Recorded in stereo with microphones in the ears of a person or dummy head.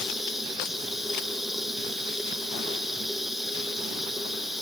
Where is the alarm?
No alarm in this recording.